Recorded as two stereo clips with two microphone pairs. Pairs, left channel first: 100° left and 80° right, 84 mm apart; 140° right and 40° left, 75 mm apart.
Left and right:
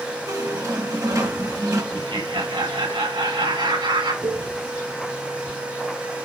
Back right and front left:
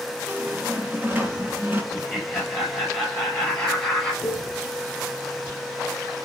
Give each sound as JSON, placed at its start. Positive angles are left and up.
{"t": 0.3, "sound": "a squeak", "azimuth_deg": -30, "distance_m": 2.5}
{"t": 1.9, "sound": "laughter", "azimuth_deg": -65, "distance_m": 4.0}
{"t": 4.2, "sound": "a cowbell", "azimuth_deg": -90, "distance_m": 2.0}